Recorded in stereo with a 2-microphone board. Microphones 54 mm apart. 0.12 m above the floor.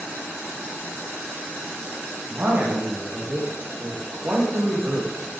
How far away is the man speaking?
About 5 m.